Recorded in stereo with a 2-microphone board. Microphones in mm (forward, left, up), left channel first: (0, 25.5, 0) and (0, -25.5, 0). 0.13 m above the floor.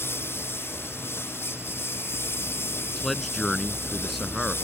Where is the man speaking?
5° left (ahead or behind).